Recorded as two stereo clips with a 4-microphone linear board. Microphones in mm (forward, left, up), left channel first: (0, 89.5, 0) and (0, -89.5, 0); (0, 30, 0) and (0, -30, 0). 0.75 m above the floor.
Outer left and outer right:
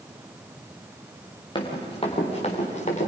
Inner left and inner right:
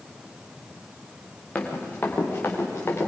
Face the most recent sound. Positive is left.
turn(degrees=45)  # may be behind; listen again after turning